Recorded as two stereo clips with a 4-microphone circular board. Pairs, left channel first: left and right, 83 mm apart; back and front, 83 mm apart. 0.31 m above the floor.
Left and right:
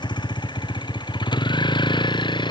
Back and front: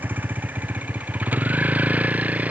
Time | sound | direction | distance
0.0 | a vehicle | 70° left | ?